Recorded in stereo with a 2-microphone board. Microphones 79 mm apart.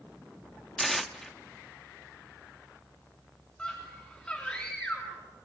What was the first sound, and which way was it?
Tearing paper, centre (ahead or behind).